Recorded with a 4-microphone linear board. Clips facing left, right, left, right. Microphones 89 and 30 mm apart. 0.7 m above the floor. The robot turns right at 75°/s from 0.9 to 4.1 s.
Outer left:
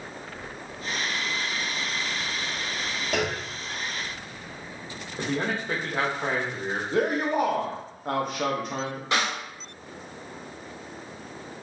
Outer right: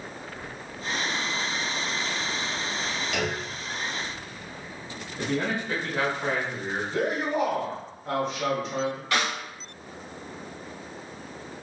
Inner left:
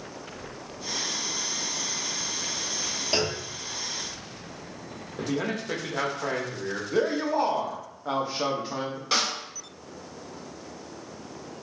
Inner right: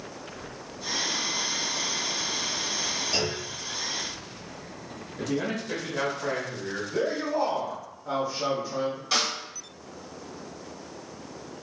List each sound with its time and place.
3.1 s a clunk: 40° left, 1.0 m; by 3.5 s 70° left, 1.0 m
5.2 s a man speaking: 35° left (ahead or behind), 1.0 m
6.9 s a man speaking: 55° left (ahead or behind), 0.8 m
9.1 s a snare drum: 20° left (ahead or behind), 2.0 m